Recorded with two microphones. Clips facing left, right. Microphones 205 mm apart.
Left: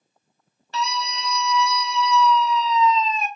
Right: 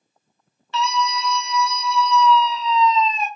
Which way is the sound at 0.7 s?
40° left (ahead or behind).